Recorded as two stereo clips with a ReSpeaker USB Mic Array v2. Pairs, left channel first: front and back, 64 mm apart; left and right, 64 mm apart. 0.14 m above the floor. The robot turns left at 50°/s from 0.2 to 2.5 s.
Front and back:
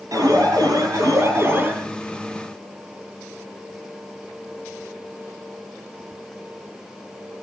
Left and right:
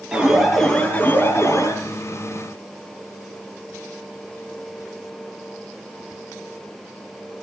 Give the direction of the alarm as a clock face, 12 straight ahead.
6 o'clock.